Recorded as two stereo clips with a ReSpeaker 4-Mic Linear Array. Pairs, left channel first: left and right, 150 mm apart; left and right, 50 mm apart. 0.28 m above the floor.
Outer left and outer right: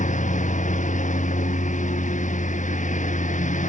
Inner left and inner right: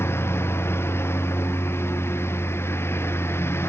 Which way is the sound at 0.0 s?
55° left (ahead or behind).